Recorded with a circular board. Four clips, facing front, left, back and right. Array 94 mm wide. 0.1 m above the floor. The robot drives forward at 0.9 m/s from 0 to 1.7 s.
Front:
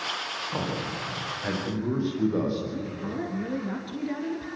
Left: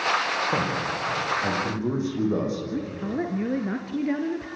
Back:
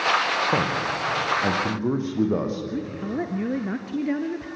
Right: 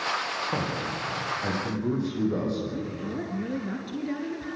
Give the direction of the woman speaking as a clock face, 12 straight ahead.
7 o'clock.